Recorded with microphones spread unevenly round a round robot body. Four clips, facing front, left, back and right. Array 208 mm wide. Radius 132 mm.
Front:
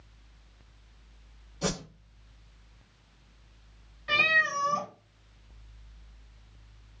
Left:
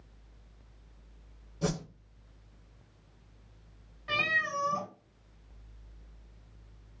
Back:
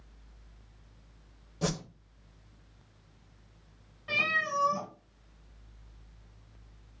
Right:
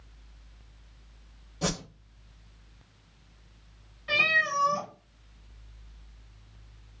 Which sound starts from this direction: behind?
A whoosh, at 1.6 s.